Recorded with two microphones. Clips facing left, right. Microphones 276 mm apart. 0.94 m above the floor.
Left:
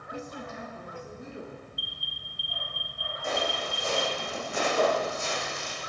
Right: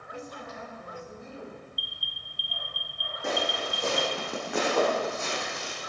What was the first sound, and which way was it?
A woman speaking, 45° left (ahead or behind).